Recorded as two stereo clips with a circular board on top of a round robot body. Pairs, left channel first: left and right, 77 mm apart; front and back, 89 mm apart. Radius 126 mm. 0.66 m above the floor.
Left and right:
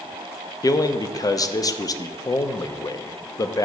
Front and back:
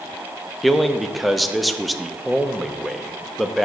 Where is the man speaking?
90° left, 0.7 m.